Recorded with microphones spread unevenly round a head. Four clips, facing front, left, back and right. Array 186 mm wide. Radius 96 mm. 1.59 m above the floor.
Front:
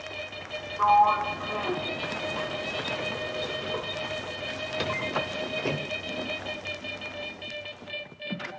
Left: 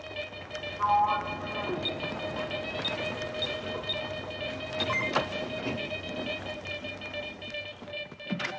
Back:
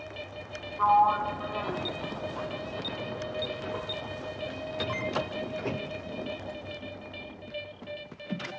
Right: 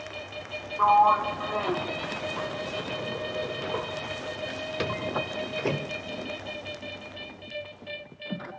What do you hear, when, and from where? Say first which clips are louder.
0.8 s a sliding door: right 6 dB, front 2 dB; 70° right, 1.9 m